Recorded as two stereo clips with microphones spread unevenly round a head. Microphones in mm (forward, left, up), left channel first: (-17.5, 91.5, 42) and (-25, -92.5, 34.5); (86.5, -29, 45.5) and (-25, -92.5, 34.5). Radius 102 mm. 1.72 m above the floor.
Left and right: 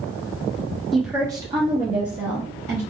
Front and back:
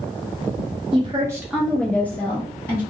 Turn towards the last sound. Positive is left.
turn(degrees=-35)